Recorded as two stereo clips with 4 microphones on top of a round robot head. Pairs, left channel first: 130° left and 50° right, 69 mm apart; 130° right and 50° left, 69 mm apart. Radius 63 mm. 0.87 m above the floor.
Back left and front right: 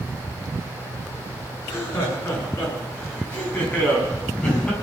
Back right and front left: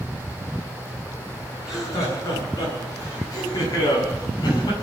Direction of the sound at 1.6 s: 175° right.